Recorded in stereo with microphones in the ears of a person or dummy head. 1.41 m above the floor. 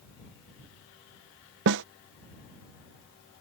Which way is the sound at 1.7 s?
60° right (ahead or behind).